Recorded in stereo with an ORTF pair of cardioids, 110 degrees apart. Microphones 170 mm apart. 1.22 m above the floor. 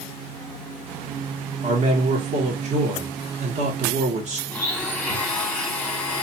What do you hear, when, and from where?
1.6 s a man speaking: 45° right, 1.2 m
4.5 s a blender: 10° left, 1.1 m